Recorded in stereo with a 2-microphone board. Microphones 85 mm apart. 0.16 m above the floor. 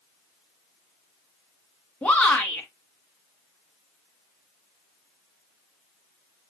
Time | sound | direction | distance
2.0 | a shout | 15° left (ahead or behind) | 1.3 m